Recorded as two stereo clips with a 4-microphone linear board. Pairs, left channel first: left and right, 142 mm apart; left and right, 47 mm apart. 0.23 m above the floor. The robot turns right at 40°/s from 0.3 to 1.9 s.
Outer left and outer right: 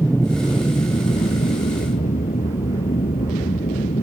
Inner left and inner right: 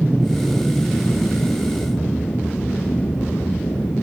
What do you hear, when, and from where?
0.0 s an aircraft: 15° left; by 4.0 s 80° left